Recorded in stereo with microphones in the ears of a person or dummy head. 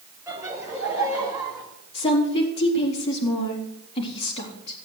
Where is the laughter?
10° right (ahead or behind), 5.5 m; by 1.6 s 15° right (ahead or behind), 6 m.